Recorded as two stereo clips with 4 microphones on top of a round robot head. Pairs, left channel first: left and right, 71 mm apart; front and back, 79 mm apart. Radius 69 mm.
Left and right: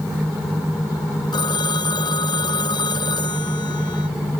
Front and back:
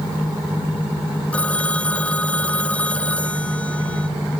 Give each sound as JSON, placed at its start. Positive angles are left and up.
{"t": 1.3, "sound": "a phone ringing", "azimuth_deg": 75}